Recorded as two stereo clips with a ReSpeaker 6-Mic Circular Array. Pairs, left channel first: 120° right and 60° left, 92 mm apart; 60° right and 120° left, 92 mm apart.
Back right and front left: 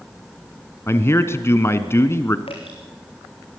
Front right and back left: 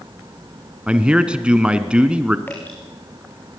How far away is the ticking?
No ticking in this recording.